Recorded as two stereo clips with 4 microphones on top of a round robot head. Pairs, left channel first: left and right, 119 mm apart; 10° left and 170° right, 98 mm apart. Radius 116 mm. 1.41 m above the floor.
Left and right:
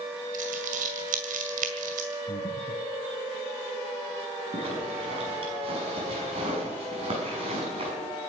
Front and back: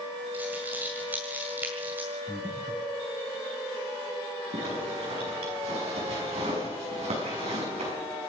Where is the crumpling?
95° right, 2 m.